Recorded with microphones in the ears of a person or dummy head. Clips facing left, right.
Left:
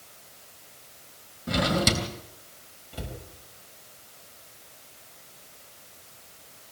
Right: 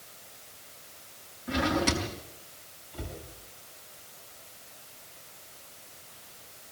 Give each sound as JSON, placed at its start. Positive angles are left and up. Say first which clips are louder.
{"t": 1.5, "sound": "a drawer", "louder": "left 2 dB", "side_deg": 55, "distance_m": 2.5}
{"t": 2.9, "sound": "a cupboard door", "louder": "left 2 dB", "side_deg": 80, "distance_m": 6.5}